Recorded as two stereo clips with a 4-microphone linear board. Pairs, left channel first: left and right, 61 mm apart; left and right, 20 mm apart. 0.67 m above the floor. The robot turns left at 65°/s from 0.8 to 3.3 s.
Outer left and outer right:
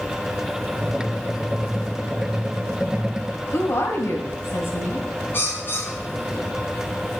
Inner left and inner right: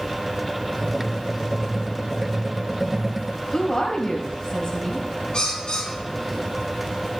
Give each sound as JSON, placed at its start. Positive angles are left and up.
{"t": 3.5, "sound": "a woman speaking", "side_deg": 50, "distance_m": 4.0}
{"t": 5.3, "sound": "a bird", "side_deg": 40, "distance_m": 4.5}